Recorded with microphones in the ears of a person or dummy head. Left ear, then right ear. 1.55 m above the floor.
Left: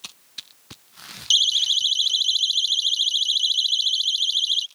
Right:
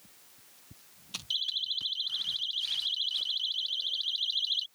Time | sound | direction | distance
1.3 | a siren | 70° left (ahead or behind) | ?